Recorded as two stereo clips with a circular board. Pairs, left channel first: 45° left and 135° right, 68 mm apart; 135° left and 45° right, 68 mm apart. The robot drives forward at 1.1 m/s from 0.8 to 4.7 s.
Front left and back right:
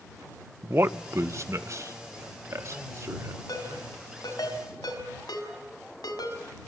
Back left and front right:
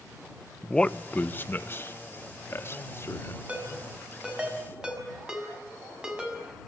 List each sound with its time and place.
0.6 s a man speaking: 155° right, 0.7 m; by 3.4 s 175° right, 3.5 m
3.5 s a ringtone: 25° left, 6.5 m; by 6.4 s 30° left, 5.5 m